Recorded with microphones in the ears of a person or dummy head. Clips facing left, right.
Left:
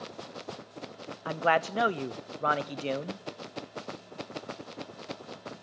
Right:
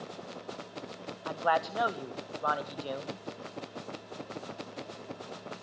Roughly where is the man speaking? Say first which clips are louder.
Left 3 dB; left.